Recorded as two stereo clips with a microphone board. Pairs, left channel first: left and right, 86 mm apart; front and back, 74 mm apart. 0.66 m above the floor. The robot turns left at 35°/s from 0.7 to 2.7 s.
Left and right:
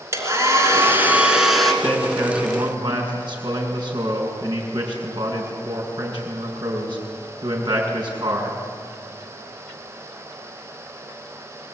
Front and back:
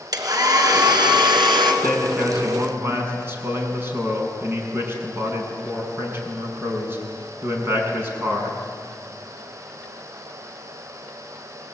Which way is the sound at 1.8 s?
90° right.